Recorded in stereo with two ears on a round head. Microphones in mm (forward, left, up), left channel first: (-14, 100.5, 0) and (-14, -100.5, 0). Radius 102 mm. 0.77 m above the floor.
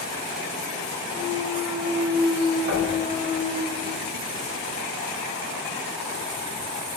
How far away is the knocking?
About 2 m.